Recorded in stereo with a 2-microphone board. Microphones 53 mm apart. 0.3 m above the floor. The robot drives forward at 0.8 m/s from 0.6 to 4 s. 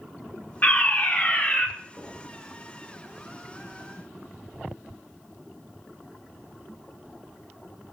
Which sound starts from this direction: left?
A fire alarm, at 0.6 s.